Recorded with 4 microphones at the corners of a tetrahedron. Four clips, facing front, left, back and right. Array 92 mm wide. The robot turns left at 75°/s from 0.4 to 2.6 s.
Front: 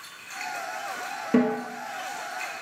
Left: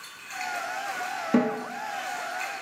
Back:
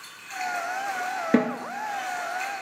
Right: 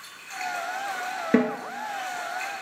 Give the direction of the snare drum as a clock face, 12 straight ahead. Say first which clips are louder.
Right 1 dB, front 1 dB; 4 o'clock.